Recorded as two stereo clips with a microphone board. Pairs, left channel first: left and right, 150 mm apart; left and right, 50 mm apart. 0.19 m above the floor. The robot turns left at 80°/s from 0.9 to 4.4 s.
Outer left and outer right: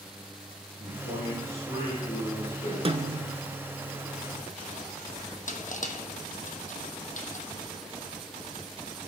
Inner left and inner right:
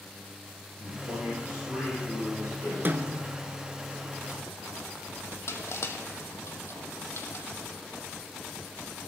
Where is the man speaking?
85° right, 4.5 m; by 2.8 s 125° left, 4.5 m.